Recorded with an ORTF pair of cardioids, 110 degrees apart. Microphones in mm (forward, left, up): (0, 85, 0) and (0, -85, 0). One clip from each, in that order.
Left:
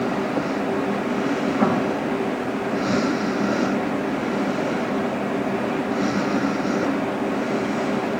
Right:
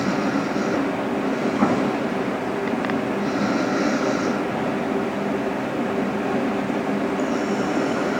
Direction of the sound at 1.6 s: 10° right.